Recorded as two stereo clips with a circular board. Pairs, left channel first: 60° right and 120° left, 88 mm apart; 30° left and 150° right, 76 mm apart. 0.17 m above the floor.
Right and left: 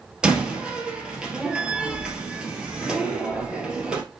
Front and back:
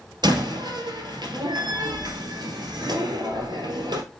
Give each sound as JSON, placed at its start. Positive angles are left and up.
{"t": 0.2, "sound": "a door slam", "azimuth_deg": -160, "distance_m": 2.0}